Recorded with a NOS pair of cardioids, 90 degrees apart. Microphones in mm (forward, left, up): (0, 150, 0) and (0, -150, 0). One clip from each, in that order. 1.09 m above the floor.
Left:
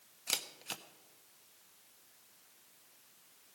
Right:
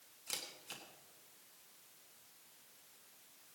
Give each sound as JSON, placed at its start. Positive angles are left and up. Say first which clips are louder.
{"t": 0.3, "sound": "a camera shutter", "louder": "left 7 dB", "azimuth_deg": 55, "distance_m": 1.2}